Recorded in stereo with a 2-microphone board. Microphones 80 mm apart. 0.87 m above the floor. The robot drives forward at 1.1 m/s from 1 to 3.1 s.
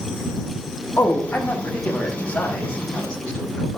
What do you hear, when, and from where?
1.0 s a man speaking: 30° left (ahead or behind), 1.9 m; by 3.8 s 15° left (ahead or behind), 4 m